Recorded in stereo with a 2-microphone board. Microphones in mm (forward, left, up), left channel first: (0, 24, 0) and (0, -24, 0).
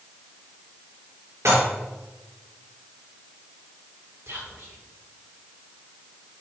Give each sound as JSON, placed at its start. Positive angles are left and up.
{"t": 1.4, "sound": "dishes clattering", "side_deg": -80, "distance_m": 3.5}
{"t": 4.3, "sound": "whispering", "side_deg": -65, "distance_m": 4.0}